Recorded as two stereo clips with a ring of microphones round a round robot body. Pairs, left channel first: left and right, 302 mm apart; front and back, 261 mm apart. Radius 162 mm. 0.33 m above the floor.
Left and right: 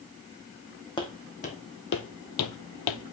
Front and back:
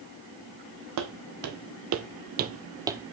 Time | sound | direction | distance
1.0 | footsteps | 165° left | 1.3 m